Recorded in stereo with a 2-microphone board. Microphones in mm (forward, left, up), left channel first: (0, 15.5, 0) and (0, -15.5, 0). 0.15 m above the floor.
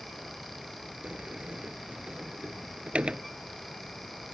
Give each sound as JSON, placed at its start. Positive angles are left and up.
{"t": 1.0, "sound": "a sliding door", "side_deg": -40}